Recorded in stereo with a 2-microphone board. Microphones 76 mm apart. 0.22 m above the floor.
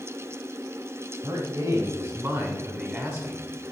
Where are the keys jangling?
No keys jangling in this recording.